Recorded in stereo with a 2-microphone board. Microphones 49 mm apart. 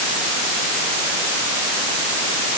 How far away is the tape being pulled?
I don't hear tape being pulled.